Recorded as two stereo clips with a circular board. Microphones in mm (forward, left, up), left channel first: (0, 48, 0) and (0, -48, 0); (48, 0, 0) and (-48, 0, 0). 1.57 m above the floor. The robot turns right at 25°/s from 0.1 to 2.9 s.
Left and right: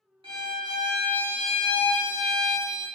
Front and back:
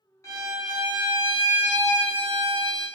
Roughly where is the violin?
Ahead right.